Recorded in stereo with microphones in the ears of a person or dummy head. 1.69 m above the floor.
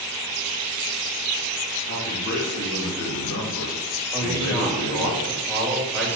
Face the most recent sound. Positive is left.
turn(degrees=5)  # may be behind; listen again after turning